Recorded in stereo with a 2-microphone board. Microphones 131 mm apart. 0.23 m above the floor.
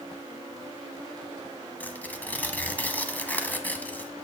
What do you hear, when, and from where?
1.8 s tearing paper: 15° left (ahead or behind), 0.9 m